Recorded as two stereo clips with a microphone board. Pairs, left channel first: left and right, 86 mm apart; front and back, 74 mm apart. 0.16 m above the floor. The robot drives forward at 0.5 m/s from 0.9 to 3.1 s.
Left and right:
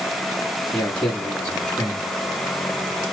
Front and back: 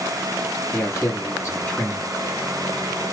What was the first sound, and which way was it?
A man speaking, 15° left.